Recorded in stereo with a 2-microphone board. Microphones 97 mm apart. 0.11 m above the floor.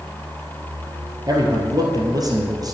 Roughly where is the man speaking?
Right.